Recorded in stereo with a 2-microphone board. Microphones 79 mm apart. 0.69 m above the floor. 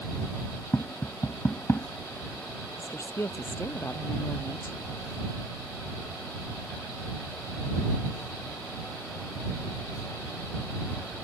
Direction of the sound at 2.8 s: 35° left (ahead or behind).